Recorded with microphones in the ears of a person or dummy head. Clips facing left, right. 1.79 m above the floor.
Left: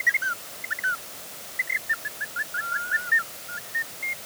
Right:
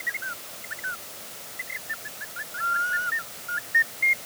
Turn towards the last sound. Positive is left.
No sound to turn to.